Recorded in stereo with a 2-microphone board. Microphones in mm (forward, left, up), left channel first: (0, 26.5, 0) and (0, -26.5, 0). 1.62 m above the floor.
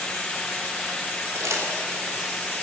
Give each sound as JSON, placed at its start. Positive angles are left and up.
{"t": 1.4, "sound": "crumpling", "side_deg": -75, "distance_m": 3.5}